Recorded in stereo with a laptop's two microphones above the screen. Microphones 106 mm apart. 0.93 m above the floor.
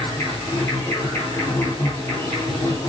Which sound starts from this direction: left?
An insect, at 0.0 s.